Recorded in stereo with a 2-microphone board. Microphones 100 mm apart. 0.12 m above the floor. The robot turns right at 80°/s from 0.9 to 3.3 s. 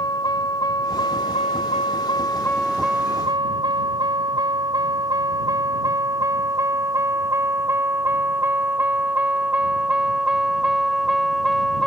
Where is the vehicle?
40° left (ahead or behind); by 11.9 s centre (ahead or behind).